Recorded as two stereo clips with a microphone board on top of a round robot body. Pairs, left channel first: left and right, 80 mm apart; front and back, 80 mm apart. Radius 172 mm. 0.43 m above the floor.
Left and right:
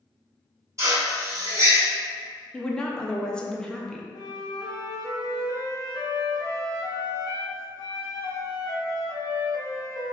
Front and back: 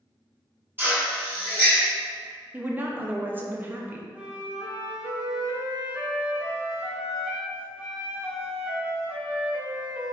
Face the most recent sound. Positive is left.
turn(degrees=105)